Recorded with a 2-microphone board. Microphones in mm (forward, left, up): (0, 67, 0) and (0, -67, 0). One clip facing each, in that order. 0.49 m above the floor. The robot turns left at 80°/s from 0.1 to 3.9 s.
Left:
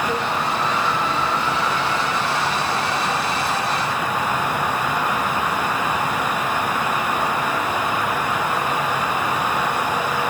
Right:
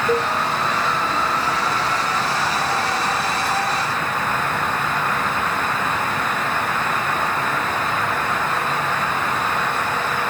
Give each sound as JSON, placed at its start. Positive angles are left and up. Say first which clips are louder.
{"t": 0.1, "sound": "a cowbell", "louder": "right 4 dB", "side_deg": -50, "distance_m": 5.0}